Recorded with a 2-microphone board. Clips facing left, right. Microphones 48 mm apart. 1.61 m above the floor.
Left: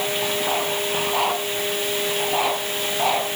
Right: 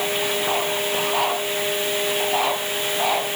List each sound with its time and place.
Only background noise.